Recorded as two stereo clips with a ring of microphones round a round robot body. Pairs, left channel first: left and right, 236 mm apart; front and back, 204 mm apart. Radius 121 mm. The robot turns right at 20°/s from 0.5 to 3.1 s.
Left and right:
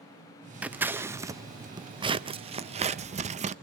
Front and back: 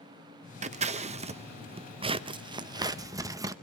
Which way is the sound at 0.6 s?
170° right.